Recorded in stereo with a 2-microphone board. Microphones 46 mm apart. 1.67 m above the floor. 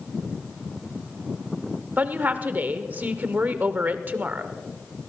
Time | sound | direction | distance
2.0 | a woman speaking | 40° right (ahead or behind) | 0.8 m